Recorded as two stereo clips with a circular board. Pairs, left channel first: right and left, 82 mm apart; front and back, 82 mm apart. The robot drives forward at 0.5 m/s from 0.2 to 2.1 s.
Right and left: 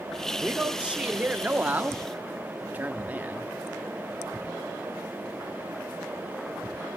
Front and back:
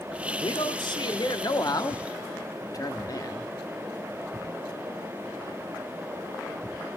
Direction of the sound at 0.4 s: 15° left.